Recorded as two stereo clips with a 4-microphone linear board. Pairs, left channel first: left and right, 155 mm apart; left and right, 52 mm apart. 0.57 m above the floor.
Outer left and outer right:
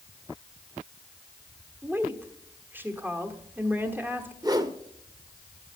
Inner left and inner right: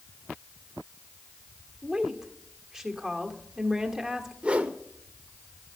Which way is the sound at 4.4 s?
25° right (ahead or behind).